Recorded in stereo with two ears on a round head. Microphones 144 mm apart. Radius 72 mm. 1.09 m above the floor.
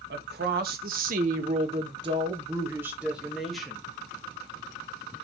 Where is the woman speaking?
70° right (ahead or behind), 1.7 m; by 3.8 s 5° left (ahead or behind), 1.9 m.